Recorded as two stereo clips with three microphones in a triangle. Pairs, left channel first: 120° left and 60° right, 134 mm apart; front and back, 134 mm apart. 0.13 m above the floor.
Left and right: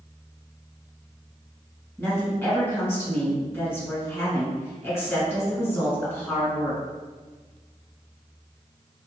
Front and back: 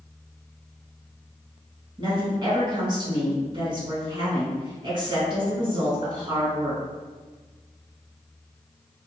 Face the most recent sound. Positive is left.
turn(degrees=180)